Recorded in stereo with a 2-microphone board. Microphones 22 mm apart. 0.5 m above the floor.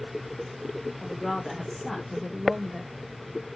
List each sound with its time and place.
1.0 s a woman speaking: centre (ahead or behind), 1.7 m; by 3.5 s 10° right (ahead or behind), 1.0 m